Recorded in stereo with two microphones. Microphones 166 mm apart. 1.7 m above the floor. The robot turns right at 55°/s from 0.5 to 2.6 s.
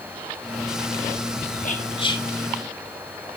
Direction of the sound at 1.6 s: 55° left (ahead or behind).